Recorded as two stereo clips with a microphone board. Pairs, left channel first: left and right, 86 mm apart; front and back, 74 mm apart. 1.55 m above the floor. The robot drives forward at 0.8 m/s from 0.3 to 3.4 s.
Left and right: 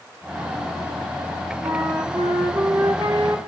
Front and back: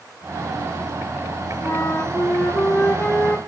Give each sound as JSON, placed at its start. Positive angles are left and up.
{"t": 1.6, "sound": "a flute", "azimuth_deg": -50, "distance_m": 3.5}